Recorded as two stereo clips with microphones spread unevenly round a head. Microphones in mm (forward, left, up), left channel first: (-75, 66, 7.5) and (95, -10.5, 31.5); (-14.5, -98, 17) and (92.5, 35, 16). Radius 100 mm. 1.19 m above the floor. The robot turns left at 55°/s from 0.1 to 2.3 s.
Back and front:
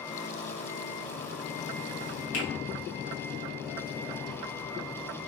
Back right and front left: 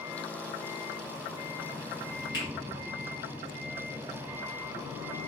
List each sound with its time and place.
2.3 s a finger snap: 160° left, 1.0 m